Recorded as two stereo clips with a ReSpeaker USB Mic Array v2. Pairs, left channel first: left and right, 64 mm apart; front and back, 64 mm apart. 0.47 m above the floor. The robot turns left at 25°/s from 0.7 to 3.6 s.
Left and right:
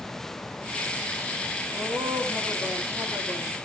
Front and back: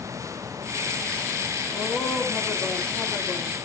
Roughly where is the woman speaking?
Ahead right.